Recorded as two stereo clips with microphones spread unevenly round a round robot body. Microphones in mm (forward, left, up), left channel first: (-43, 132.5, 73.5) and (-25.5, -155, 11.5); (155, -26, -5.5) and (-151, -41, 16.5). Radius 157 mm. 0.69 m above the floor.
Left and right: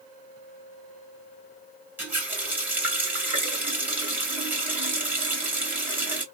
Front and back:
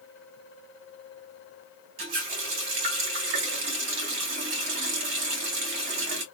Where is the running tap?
170° right, 1.6 m.